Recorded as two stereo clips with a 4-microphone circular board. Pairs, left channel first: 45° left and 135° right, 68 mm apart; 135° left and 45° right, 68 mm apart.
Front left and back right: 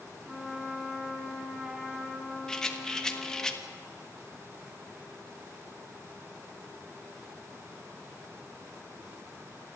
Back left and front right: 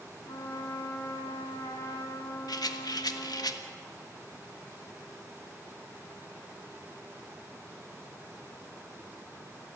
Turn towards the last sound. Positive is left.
turn(degrees=125)